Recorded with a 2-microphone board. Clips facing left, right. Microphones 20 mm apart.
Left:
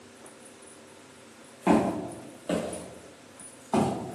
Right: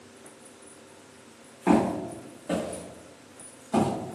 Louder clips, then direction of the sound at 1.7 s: Right 1 dB; 10° left (ahead or behind).